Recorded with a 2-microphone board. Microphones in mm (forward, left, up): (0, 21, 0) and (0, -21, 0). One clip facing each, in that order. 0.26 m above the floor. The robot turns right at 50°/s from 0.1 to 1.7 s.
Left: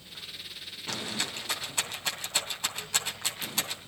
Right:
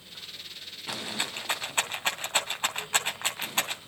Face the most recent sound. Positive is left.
turn(degrees=-40)  # may be behind; listen again after turning